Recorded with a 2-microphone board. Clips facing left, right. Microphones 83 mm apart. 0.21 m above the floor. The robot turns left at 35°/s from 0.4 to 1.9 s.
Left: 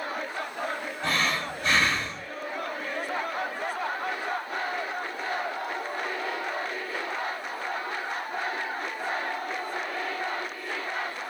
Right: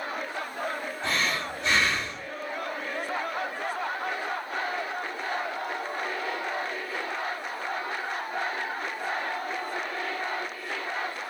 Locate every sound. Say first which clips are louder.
1.0 s breathing: left 2 dB; 85° left, 2 m; by 2.3 s 55° left, 2 m